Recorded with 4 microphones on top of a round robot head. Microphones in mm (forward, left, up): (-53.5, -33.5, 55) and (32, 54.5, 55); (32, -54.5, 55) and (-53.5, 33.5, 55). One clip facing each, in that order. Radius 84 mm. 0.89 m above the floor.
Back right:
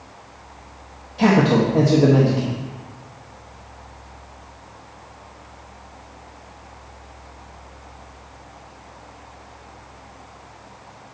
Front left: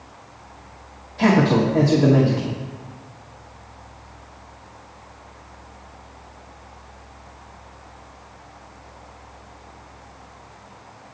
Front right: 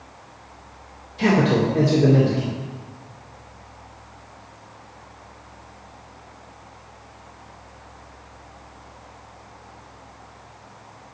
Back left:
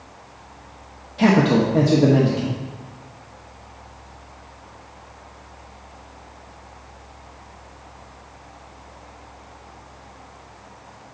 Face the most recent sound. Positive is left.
turn(degrees=155)